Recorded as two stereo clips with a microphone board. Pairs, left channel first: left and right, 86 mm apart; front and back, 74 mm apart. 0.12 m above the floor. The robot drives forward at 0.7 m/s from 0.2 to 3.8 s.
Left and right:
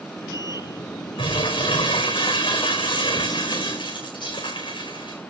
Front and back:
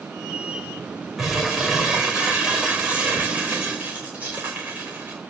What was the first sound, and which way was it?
Crumpling, 95° left.